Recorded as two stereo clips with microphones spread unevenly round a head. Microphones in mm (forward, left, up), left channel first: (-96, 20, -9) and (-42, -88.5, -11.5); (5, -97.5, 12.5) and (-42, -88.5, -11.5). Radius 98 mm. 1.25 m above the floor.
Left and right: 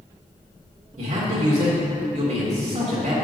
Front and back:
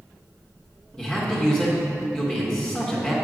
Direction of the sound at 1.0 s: 85° right.